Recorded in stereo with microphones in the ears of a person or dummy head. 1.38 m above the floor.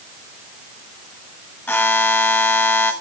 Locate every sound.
1.7 s a buzzer: 10° left (ahead or behind), 1.2 m